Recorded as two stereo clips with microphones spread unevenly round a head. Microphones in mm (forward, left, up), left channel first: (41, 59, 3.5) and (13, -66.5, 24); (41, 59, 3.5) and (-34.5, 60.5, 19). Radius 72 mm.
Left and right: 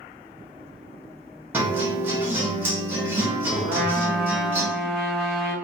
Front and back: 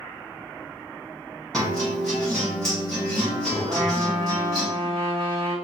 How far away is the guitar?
About 0.8 m.